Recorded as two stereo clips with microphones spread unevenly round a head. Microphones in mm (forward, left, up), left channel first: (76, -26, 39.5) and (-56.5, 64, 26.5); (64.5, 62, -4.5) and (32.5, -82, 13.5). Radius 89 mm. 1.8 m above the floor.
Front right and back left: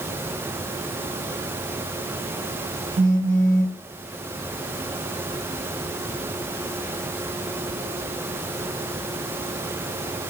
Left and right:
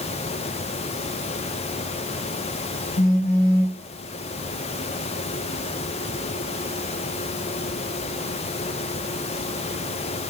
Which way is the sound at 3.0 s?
115° left.